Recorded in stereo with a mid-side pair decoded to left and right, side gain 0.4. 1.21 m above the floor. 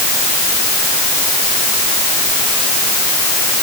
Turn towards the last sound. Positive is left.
No sound to turn to.